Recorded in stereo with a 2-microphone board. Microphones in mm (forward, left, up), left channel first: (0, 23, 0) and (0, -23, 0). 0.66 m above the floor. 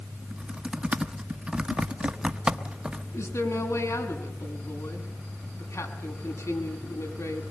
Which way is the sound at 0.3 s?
20° right (ahead or behind).